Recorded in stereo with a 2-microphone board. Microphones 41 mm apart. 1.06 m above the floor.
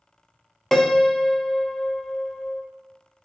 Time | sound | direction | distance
0.7 | a piano | 10° left (ahead or behind) | 0.5 m